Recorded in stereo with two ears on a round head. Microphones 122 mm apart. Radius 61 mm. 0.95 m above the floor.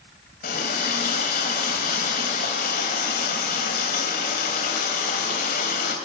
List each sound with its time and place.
0.4 s a running tap: 65° left (ahead or behind), 3 m